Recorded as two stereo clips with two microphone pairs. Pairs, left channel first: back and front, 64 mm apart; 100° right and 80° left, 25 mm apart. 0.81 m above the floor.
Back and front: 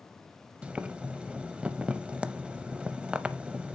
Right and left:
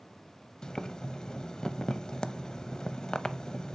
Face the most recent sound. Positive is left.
turn(degrees=-60)